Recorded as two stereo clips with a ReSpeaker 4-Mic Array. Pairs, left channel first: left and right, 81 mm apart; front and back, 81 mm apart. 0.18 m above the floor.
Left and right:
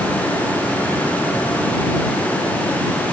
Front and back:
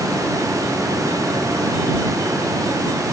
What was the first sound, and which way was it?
Only background noise.